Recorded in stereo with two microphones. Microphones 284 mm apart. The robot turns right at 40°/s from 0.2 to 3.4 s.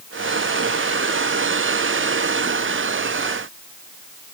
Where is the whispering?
I don't hear whispering.